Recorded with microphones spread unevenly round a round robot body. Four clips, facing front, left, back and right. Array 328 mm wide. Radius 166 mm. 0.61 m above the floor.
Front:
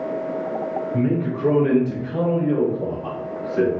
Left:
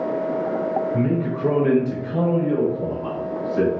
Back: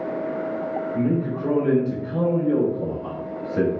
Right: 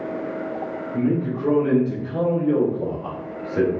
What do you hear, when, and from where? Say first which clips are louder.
0.9 s a man speaking: even, front 1 dB; 45° left, 1.3 m; by 3.7 s 110° right, 1.2 m